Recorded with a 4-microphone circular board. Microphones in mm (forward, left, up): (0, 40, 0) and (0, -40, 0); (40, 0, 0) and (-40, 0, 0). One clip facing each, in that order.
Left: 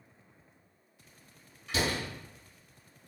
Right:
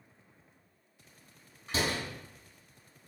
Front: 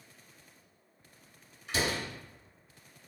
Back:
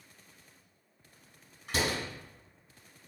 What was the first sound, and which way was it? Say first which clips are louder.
A door slam: left 1 dB, even; 140° right.